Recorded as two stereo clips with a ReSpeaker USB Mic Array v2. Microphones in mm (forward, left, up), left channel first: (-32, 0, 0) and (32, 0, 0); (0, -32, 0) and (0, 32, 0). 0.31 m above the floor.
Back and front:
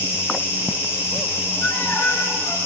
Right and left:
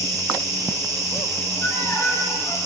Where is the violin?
130° right, 5 m.